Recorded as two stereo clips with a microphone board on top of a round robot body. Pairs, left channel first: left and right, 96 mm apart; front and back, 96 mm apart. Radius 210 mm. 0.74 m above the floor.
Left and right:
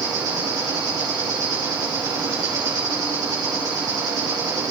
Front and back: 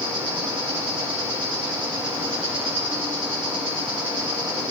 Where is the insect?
140° right, 5 m.